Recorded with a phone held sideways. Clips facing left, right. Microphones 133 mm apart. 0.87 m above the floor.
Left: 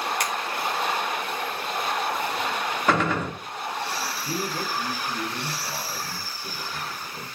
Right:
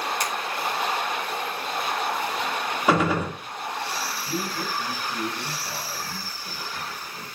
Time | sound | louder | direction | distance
0.2 | a finger snap | even | 60° left (ahead or behind) | 2.5 m
2.9 | a gunshot | right 2 dB | 10° right (ahead or behind) | 1.7 m
4.2 | a man speaking | left 1 dB | 55° left (ahead or behind) | 6 m